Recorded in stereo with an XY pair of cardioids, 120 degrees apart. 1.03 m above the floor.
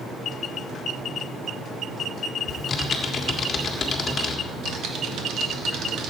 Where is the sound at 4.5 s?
65° right, 2.0 m.